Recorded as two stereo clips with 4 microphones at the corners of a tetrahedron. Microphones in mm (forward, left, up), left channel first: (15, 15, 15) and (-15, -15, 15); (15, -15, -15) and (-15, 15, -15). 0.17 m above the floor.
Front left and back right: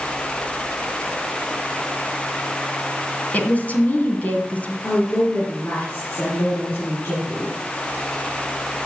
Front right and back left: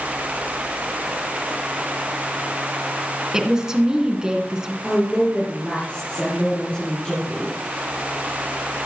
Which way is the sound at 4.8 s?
15° left.